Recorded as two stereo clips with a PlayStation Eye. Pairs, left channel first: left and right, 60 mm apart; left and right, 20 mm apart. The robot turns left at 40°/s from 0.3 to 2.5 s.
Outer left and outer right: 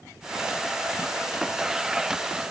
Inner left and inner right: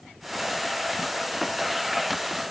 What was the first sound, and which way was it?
Only background noise.